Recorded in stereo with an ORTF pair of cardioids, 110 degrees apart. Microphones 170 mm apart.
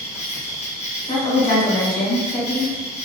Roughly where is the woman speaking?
Left.